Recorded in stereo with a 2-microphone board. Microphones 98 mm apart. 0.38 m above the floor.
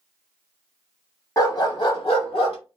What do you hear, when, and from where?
1.4 s a dog barking: 35° left (ahead or behind), 0.8 m; by 2.6 s 75° left (ahead or behind), 0.8 m